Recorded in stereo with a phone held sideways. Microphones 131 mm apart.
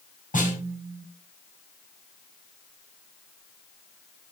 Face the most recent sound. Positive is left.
turn(degrees=80)